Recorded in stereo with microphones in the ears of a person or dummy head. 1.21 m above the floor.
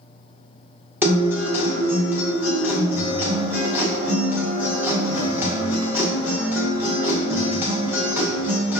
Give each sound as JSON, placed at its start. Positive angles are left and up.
{"t": 1.0, "sound": "a guitar", "side_deg": -10, "distance_m": 0.7}